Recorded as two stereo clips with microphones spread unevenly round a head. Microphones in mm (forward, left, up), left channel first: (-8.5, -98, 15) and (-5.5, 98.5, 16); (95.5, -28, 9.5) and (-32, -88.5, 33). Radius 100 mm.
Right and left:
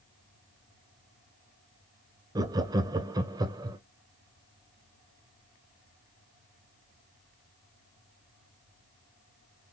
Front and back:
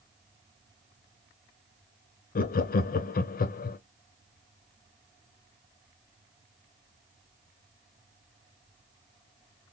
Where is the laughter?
15° left, 0.6 m.